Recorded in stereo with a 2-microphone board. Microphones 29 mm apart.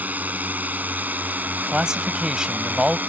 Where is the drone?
70° right (ahead or behind); by 3.1 s 75° right (ahead or behind).